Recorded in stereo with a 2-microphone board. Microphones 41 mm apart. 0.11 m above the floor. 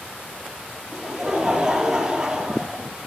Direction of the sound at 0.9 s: 15° right (ahead or behind).